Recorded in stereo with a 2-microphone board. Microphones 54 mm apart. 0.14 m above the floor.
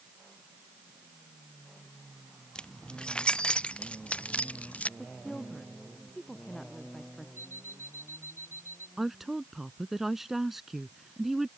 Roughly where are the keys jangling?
Centre.